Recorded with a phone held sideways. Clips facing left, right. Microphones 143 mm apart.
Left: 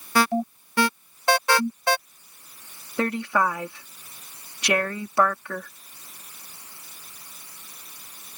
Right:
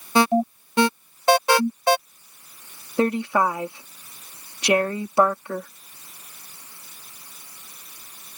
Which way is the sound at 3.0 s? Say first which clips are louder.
Right 3 dB; 25° right (ahead or behind).